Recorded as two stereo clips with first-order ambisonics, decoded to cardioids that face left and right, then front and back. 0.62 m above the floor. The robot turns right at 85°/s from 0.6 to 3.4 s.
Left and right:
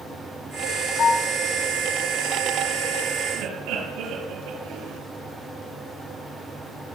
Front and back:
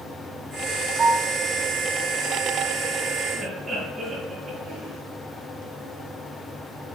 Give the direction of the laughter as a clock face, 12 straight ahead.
3 o'clock.